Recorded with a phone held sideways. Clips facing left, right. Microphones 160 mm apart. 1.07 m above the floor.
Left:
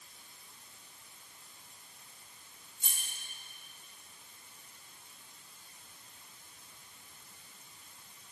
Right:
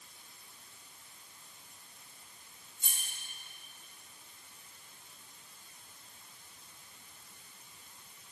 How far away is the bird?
I don't hear a bird.